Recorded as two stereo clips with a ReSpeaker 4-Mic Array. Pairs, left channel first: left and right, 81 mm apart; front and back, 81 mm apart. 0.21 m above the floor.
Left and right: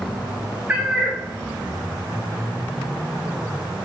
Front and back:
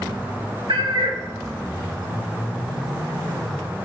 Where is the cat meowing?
160° right, 1.2 m.